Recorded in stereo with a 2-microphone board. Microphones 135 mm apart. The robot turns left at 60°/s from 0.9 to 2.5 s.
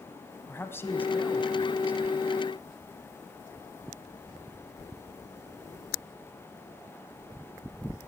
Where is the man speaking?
35° left, 1.2 m; by 2.1 s 35° right, 1.2 m.